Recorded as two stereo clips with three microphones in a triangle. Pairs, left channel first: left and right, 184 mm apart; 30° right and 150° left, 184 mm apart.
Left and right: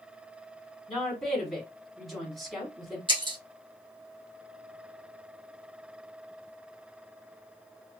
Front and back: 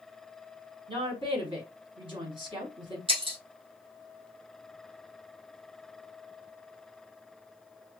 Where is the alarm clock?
I don't hear an alarm clock.